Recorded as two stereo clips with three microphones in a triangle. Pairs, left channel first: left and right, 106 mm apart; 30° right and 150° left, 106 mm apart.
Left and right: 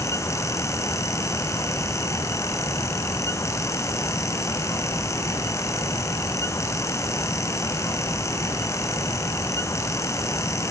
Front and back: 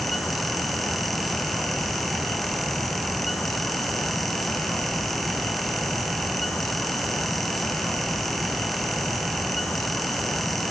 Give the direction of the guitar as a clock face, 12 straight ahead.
I don't hear a guitar.